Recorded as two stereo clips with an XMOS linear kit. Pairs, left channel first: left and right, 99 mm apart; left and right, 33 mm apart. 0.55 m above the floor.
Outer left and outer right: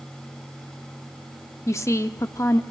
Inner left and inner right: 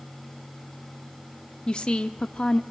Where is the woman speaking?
30° left (ahead or behind), 0.7 m.